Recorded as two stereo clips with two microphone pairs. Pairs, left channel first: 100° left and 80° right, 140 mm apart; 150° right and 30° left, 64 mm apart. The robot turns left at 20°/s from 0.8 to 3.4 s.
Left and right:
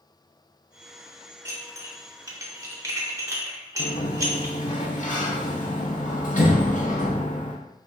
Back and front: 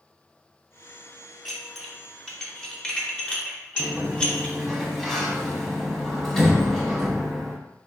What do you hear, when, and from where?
1.4 s dishes clattering: 60° right, 0.6 m; by 4.5 s 100° right, 0.6 m
3.8 s a sliding door: 125° left, 0.7 m